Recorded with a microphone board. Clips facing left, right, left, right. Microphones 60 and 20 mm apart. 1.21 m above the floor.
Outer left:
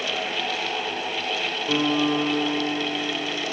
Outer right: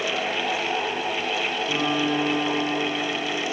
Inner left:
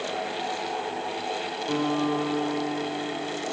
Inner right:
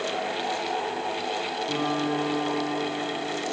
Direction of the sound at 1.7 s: 30° left (ahead or behind).